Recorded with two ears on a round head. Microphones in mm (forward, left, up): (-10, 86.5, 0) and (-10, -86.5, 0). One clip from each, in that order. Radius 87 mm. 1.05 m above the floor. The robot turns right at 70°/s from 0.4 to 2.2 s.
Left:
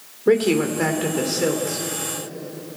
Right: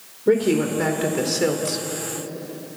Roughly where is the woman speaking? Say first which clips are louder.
Left 1 dB; behind left.